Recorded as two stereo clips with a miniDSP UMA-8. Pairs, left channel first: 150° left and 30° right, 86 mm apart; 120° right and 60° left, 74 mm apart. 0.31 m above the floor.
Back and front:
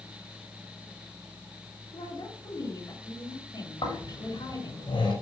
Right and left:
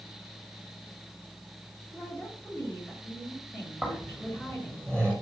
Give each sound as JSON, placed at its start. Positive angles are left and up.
{"t": 1.9, "sound": "a woman speaking", "azimuth_deg": 175, "distance_m": 6.5}
{"t": 3.8, "sound": "snoring", "azimuth_deg": 160, "distance_m": 9.5}